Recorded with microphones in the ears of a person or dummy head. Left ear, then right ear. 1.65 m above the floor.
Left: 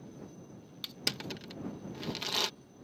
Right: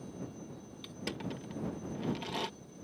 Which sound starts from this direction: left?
Crushing, at 0.8 s.